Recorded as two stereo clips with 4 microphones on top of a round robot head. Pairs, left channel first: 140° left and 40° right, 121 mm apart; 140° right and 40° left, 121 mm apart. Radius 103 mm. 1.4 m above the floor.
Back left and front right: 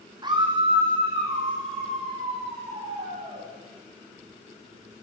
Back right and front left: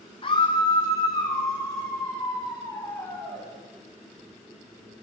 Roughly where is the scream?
Right.